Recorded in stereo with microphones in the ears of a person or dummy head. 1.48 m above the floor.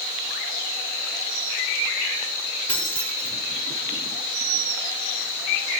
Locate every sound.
2.7 s keys jangling: 15° left (ahead or behind), 1.9 m